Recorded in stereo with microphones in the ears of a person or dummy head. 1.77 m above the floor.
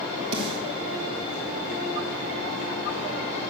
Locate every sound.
0.3 s a snare drum: 30° right (ahead or behind), 2.5 m